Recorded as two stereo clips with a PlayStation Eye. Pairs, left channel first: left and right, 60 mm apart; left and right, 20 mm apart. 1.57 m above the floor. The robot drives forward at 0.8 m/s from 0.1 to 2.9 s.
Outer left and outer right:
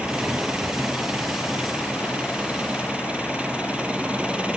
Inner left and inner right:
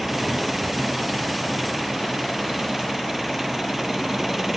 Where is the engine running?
20° right (ahead or behind).